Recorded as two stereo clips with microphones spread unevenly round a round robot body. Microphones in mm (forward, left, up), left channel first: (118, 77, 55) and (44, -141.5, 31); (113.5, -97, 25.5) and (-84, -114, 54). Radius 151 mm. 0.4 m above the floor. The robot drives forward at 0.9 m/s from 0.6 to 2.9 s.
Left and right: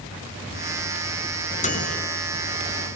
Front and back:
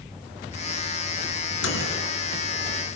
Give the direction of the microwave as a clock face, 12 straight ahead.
12 o'clock.